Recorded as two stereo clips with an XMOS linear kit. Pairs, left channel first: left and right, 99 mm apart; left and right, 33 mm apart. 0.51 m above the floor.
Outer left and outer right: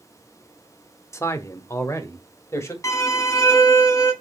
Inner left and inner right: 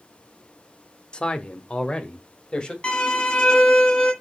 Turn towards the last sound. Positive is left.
turn(degrees=30)  # may be behind; listen again after turning